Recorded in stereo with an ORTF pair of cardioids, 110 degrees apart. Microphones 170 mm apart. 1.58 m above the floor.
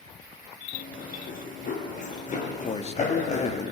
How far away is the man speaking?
About 3 m.